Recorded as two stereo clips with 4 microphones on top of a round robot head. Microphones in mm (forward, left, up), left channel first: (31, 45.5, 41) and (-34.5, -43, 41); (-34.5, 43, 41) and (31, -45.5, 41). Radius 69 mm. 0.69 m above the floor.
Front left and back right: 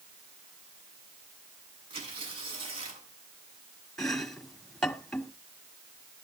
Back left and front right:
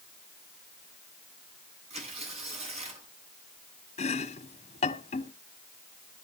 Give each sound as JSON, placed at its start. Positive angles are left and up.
{"t": 1.9, "sound": "tearing paper", "azimuth_deg": -85, "distance_m": 7.0}
{"t": 4.0, "sound": "chopping", "azimuth_deg": 140, "distance_m": 1.8}